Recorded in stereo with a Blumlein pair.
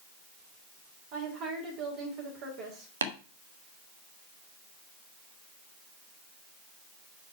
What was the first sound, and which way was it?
A woman speaking, 40° right.